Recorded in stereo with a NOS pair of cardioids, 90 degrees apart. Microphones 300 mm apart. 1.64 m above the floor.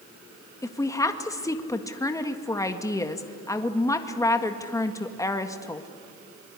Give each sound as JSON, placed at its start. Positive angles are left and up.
{"t": 0.6, "sound": "a woman speaking", "azimuth_deg": 10, "distance_m": 1.8}